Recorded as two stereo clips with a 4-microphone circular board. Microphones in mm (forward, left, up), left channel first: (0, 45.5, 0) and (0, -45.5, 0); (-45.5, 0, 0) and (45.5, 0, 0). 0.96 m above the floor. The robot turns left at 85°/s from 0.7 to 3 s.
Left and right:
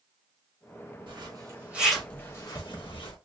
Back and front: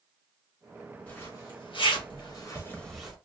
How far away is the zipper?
About 1.1 m.